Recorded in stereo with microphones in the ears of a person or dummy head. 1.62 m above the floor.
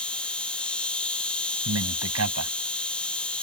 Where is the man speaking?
75° right (ahead or behind).